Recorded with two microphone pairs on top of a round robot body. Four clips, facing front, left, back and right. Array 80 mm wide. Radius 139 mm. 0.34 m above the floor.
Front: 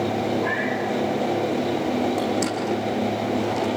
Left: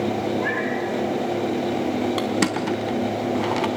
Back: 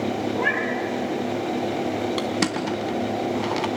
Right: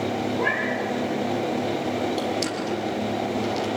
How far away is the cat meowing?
About 6 m.